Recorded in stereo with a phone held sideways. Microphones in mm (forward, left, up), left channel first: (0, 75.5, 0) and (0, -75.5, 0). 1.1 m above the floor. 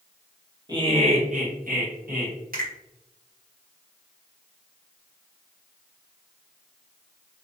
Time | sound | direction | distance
0.7 | laughter | 30° right (ahead or behind) | 1.0 m
2.5 | a finger snap | 75° right (ahead or behind) | 1.3 m